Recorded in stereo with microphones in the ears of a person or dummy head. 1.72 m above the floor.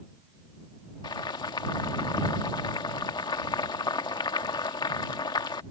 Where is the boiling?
25° left (ahead or behind).